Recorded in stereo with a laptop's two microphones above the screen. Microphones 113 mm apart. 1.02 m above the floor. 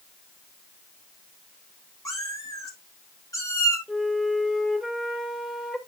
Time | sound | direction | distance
2.0 | a cat meowing | 30° left (ahead or behind) | 3 m
3.9 | a flute | centre (ahead or behind) | 2.5 m